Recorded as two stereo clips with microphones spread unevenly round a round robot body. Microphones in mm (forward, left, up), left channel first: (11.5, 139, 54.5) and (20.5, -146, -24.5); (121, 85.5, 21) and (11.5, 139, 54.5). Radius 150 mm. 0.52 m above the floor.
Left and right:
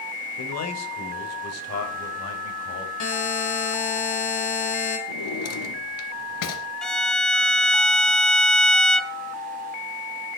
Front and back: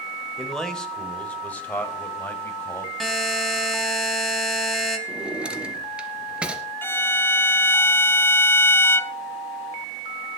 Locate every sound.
0.4 s a man speaking: 55° left, 3 m; by 2.9 s 40° left, 4.5 m
3.0 s a buzzer: 60° left, 4.5 m
5.1 s a drawer: 75° left, 3 m
6.8 s a violin: 20° right, 0.7 m